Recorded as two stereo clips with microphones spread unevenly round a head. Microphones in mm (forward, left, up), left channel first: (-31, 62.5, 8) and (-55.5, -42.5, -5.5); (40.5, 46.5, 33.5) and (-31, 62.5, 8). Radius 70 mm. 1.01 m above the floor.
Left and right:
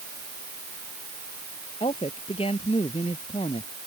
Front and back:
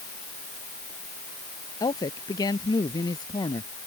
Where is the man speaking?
15° left.